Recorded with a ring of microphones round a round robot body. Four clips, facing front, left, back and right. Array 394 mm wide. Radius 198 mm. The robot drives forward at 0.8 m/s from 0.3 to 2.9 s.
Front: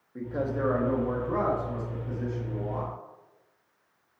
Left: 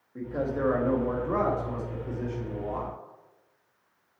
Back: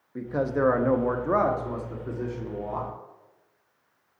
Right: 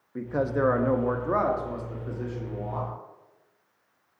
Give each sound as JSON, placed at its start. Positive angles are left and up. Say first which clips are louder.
{"t": 0.1, "sound": "a man speaking", "louder": "right 3 dB, back 4 dB", "azimuth_deg": -125, "distance_m": 0.9}